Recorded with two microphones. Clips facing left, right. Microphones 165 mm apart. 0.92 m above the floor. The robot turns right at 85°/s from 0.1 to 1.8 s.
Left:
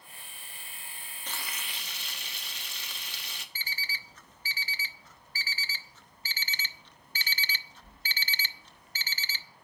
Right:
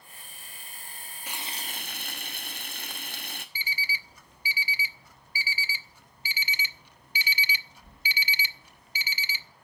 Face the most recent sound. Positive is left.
turn(degrees=-10)  # may be behind; listen again after turning